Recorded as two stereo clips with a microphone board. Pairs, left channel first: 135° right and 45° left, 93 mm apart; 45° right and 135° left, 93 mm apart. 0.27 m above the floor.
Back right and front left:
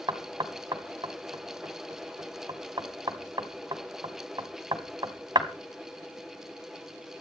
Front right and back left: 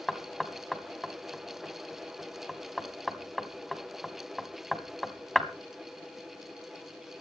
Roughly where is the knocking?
Ahead left.